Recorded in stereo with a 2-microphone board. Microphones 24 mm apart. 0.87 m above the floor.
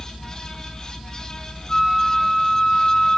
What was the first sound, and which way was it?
A flute, 25° left (ahead or behind).